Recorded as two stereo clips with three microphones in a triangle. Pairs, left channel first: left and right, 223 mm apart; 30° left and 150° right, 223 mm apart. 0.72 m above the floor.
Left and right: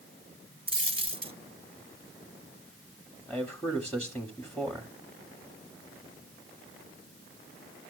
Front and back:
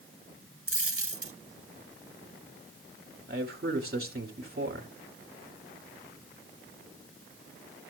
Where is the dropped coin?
160° right, 0.7 m.